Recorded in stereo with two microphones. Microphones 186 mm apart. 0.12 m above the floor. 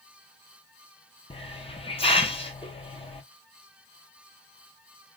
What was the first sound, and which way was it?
A hiss, 30° left (ahead or behind).